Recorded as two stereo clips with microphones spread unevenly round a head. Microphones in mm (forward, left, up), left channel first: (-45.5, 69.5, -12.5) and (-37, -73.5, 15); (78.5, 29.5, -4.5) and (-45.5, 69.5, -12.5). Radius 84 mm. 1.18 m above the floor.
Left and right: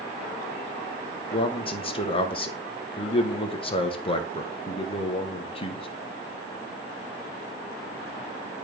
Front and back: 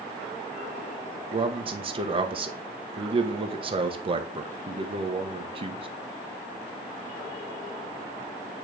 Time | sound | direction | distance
1.3 | a man speaking | 125° left | 1.0 m